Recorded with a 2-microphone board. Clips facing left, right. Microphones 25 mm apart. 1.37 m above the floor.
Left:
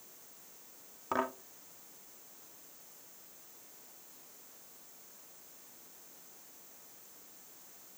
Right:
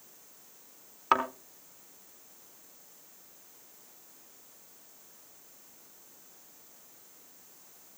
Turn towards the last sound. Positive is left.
turn(degrees=-65)  # may be behind; listen again after turning